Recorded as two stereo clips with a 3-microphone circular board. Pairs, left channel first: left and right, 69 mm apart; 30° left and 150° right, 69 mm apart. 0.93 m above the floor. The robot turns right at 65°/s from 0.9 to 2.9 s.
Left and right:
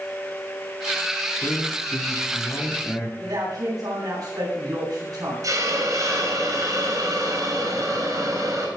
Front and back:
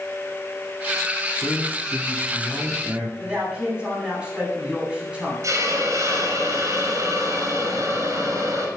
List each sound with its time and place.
1.4 s a man speaking: 55° left, 2.5 m; by 3.1 s 155° left, 2.5 m
3.2 s a man speaking: 75° right, 9.5 m
5.4 s a hiss: 115° right, 6 m